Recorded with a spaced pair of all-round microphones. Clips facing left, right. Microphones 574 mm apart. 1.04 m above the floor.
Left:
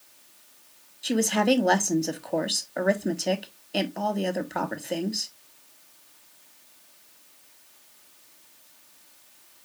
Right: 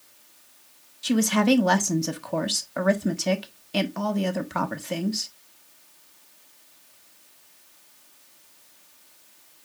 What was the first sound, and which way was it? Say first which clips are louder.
A woman speaking: right 2 dB; 30° right (ahead or behind).